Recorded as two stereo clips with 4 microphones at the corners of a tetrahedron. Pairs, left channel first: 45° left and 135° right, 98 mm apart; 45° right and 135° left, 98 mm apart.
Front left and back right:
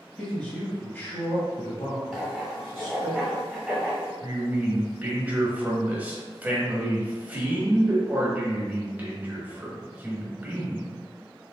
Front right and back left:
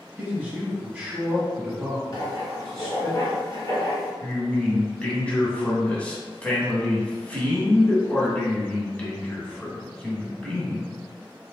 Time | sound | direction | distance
0.2 | a man speaking | 115° left | 1.5 m
2.1 | writing | 50° right | 1.7 m
4.2 | a man speaking | 95° right | 1.0 m